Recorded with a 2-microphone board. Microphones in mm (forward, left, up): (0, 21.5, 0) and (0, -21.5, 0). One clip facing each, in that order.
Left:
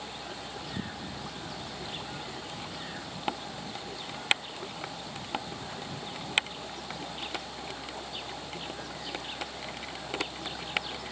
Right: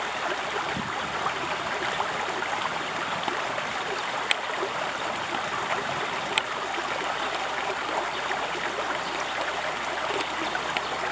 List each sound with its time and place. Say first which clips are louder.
0.0 s running water: right 12 dB; 80° right